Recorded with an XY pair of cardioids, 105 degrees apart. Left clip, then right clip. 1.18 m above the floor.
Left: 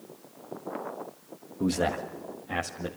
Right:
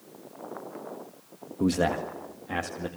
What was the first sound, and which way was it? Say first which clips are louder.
A man speaking: right 2 dB; 20° right.